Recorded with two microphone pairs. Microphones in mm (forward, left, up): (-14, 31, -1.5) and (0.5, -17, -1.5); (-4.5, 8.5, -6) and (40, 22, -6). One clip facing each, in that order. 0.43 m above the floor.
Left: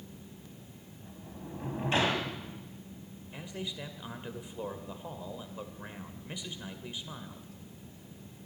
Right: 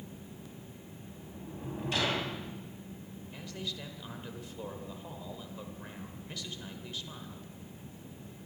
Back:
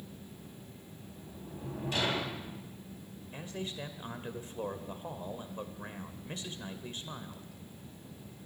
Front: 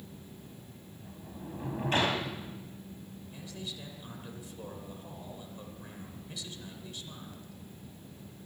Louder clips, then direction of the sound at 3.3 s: Left 2 dB, back 4 dB; 170° left.